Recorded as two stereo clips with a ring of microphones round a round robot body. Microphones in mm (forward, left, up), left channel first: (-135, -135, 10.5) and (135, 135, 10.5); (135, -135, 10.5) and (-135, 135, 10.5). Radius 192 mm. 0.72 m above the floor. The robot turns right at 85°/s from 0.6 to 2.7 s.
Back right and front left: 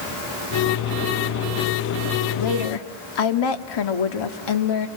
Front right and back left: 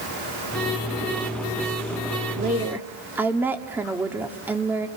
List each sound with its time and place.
2.4 s a woman speaking: 170° right, 1.5 m; by 4.9 s 140° right, 1.5 m